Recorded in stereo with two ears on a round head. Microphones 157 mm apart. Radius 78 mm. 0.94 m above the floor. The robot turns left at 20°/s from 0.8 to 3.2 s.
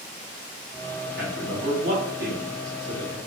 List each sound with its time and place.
1.2 s a man speaking: 55° right (ahead or behind), 2 m; by 3.2 s 70° right (ahead or behind), 2 m